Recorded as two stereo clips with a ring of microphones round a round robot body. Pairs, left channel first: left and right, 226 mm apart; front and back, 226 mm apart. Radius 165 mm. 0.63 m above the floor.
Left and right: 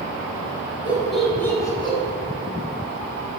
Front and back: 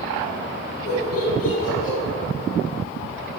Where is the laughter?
5° right, 3 m; by 2.0 s 25° left, 3 m.